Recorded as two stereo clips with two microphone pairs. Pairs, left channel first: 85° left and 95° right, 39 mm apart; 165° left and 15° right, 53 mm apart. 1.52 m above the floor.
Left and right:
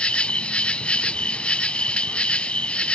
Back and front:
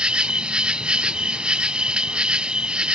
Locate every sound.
0.0 s an insect: 45° left